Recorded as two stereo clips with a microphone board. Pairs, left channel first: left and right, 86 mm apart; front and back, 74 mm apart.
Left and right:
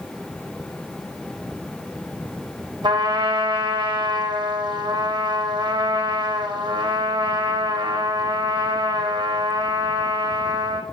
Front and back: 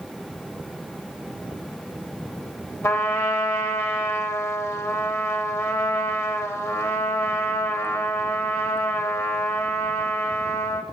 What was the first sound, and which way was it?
A trumpet, 55° right.